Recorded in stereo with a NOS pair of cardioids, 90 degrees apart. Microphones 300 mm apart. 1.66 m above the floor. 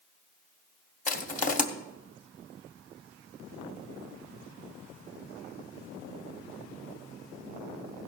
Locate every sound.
1.1 s crushing: 25° left, 1.5 m